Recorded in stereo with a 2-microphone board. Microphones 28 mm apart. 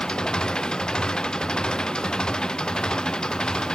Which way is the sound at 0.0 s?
25° left (ahead or behind).